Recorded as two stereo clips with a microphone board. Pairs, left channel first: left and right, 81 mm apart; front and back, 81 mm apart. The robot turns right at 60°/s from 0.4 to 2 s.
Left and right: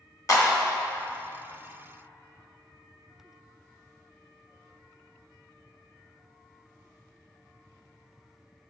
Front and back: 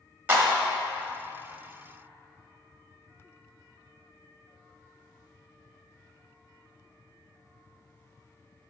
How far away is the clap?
About 1.1 m.